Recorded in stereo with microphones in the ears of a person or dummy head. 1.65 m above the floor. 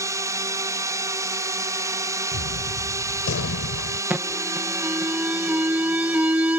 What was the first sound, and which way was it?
A drone, 20° right (ahead or behind).